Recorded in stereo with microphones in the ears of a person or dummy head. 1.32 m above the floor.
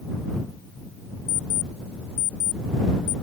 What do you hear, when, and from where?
1.3 s an alarm clock: 40° left (ahead or behind)